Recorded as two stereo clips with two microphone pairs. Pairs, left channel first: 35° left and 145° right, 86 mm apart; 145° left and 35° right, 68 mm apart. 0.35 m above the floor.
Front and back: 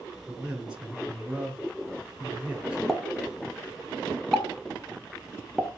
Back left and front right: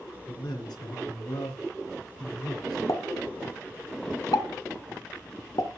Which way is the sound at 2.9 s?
120° left.